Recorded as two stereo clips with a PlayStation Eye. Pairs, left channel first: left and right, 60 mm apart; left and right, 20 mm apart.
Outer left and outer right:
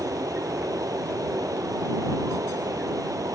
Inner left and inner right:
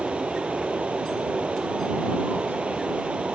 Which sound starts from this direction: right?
Running water, at 0.0 s.